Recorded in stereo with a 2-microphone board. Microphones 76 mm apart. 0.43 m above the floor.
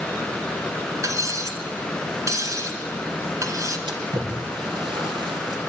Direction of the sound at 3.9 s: 85° right.